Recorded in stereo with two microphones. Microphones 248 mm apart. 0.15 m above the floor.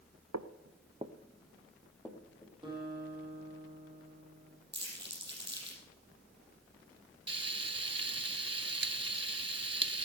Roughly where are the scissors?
I don't hear scissors.